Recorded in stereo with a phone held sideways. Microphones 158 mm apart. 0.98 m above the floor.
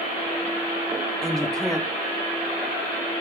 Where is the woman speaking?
5° left (ahead or behind), 1.7 m.